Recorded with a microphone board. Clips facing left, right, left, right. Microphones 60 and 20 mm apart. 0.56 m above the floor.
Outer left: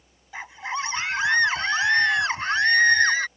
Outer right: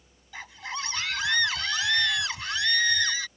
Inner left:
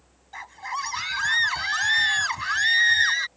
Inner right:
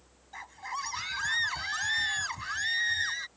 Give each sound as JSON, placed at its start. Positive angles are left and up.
{"t": 0.3, "sound": "a scream", "side_deg": 20}